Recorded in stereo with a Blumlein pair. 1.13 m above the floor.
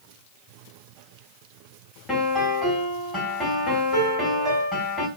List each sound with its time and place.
2.1 s a piano: straight ahead, 3 m